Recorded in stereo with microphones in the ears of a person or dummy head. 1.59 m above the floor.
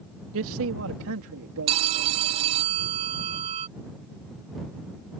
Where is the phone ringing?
35° right (ahead or behind).